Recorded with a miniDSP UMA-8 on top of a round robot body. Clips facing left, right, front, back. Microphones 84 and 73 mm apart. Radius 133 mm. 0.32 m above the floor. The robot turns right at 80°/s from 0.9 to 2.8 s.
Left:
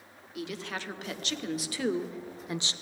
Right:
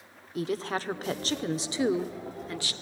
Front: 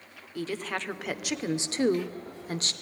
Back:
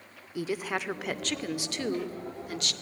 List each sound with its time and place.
0.3 s a woman speaking: 105° right, 1.1 m; by 2.7 s 40° left, 1.1 m